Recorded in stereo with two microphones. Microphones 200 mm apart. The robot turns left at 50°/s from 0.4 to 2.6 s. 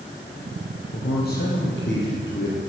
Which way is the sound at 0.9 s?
130° left.